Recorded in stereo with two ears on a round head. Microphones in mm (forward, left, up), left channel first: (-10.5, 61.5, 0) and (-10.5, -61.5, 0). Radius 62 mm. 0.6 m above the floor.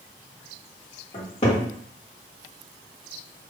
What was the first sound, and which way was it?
A cupboard door, 40° left (ahead or behind).